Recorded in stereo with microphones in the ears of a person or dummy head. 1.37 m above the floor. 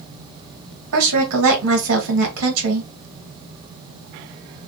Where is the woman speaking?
80° right, 1.5 m.